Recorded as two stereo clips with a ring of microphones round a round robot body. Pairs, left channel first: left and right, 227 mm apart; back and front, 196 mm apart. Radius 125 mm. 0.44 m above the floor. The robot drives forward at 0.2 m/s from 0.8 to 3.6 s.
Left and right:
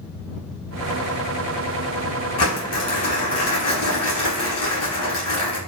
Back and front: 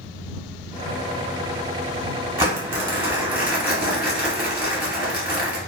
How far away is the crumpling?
About 1.6 m.